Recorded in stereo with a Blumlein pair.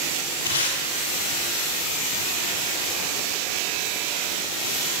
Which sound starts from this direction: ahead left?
Tape being pulled, at 0.5 s.